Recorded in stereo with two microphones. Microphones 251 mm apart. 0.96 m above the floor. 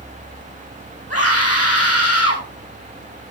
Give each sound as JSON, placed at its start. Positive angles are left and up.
{"t": 1.1, "sound": "a scream", "side_deg": 70, "distance_m": 8.0}